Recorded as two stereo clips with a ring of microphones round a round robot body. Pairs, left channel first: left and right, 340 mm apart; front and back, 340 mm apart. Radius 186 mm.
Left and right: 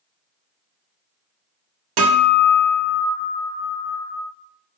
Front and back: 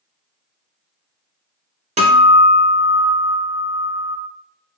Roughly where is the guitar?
Right.